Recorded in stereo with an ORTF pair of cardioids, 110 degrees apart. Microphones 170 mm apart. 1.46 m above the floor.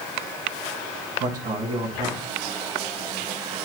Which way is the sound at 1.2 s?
55° right.